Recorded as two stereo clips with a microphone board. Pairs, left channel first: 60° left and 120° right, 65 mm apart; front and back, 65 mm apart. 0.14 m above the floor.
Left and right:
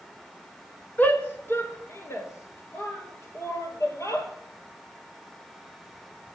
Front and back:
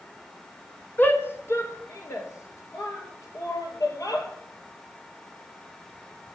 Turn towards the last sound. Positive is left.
turn(degrees=25)